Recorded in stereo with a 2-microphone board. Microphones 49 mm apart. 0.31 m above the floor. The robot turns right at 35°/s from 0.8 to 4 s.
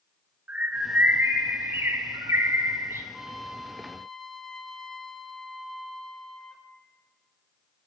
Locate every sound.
0.5 s a bird: 150° right, 0.5 m; by 3.0 s 70° right, 0.5 m
3.1 s a trumpet: 20° right, 0.6 m; by 6.7 s 10° left, 0.6 m